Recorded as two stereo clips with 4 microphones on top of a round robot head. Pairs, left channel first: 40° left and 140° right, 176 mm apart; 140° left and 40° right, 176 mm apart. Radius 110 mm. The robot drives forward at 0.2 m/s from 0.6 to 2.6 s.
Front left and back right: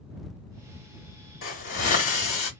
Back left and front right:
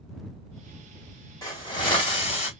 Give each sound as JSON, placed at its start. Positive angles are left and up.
{"t": 1.4, "sound": "a hiss", "azimuth_deg": 70, "distance_m": 0.9}